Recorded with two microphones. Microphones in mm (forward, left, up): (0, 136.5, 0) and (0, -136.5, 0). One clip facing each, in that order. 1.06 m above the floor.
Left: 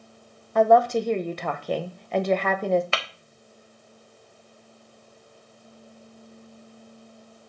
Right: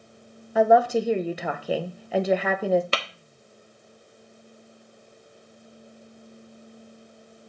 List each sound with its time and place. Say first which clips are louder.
0.6 s a woman speaking: even; 5° right (ahead or behind), 0.8 m
2.9 s tapping: right 2 dB; 40° right (ahead or behind), 1.0 m